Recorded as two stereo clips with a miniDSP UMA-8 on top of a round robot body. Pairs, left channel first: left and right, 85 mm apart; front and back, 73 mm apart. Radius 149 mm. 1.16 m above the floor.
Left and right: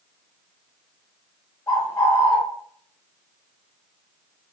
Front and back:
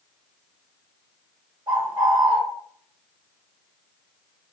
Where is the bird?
145° left, 1.1 m.